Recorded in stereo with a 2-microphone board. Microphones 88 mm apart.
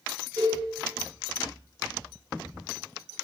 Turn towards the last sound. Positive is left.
turn(degrees=30)  # may be behind; listen again after turning